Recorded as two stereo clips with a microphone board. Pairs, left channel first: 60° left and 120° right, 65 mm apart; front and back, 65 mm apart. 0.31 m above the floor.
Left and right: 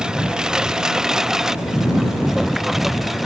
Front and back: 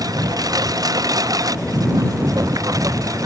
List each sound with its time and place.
0.0 s a lawn mower: 165° left; by 3.3 s 155° left